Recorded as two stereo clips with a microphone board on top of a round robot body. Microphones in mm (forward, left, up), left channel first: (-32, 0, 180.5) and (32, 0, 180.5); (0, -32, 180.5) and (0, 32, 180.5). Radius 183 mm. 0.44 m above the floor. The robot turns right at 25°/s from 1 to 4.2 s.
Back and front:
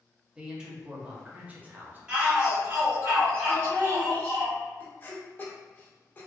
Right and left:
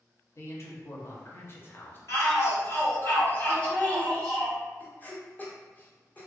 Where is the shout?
80° right, 1.9 m; by 4.5 s 25° right, 1.9 m.